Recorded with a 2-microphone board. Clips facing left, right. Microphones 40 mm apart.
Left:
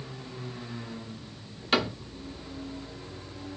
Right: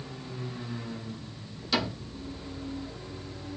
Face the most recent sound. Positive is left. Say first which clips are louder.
# left 3 dB
turn(degrees=45)  # may be behind; listen again after turning